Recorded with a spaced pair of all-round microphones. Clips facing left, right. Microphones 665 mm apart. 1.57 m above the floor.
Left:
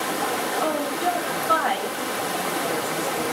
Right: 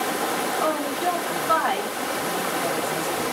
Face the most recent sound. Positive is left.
turn(degrees=-5)  # may be behind; listen again after turning